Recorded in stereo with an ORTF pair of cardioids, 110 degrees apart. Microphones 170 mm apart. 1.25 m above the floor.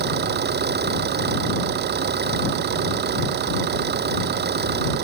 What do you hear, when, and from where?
0.0 s an engine running: 70° right